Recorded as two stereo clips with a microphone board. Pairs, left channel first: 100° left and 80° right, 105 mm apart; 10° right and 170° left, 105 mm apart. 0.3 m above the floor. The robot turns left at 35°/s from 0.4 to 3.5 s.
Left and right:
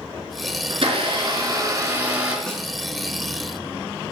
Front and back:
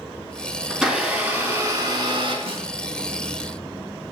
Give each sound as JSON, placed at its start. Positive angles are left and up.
{"t": 0.7, "sound": "a blender", "azimuth_deg": -105, "distance_m": 3.5}
{"t": 2.5, "sound": "a snare drum", "azimuth_deg": 180, "distance_m": 2.5}